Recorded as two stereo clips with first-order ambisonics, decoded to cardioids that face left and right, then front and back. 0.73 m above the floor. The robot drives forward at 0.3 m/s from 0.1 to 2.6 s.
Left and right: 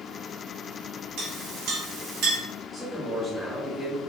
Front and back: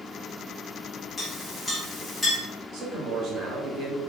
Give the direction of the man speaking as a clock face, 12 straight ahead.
5 o'clock.